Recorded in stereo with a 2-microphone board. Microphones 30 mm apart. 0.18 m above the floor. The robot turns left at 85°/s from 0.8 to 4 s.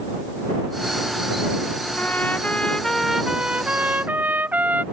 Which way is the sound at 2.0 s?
95° left.